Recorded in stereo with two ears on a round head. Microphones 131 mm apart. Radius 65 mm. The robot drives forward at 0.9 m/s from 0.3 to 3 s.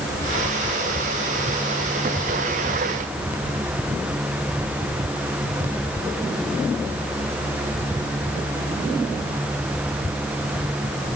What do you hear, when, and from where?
Only background noise.